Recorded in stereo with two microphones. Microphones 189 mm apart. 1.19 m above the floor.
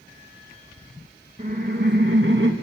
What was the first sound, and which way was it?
Laughter, 40° right (ahead or behind).